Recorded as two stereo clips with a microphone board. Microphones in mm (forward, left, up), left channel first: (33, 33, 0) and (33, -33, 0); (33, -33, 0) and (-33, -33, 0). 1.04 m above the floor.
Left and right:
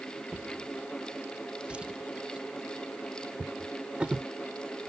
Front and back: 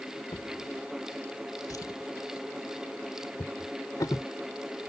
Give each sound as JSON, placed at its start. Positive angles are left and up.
{"t": 0.3, "sound": "a drawer", "azimuth_deg": -15}